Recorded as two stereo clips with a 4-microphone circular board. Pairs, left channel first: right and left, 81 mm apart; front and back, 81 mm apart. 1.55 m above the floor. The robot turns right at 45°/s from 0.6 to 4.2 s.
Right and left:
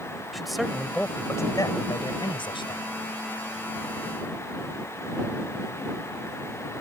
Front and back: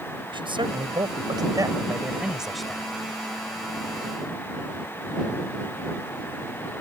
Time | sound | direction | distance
0.3 | a man speaking | straight behind | ?